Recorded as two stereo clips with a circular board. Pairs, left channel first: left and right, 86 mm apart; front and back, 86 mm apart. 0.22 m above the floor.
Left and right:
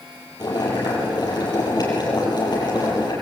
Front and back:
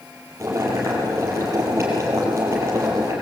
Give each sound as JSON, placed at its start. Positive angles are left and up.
{"t": 0.4, "sound": "boiling", "azimuth_deg": 125, "distance_m": 6.5}